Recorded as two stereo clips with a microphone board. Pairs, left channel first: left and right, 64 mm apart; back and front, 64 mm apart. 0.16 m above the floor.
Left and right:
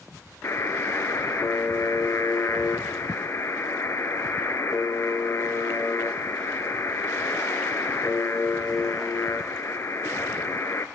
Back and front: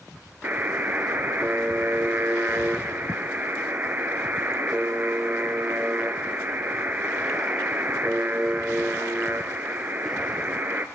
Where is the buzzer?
55° left, 0.7 m.